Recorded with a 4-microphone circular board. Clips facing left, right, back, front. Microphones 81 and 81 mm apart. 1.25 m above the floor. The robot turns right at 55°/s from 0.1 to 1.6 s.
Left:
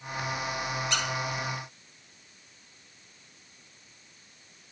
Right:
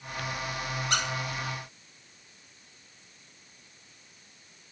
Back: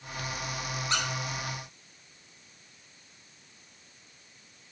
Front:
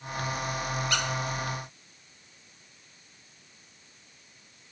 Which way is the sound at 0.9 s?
125° right.